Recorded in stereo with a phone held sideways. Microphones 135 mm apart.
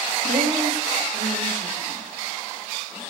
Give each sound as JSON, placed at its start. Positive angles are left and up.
{"t": 0.2, "sound": "a woman speaking", "side_deg": -80, "distance_m": 5.5}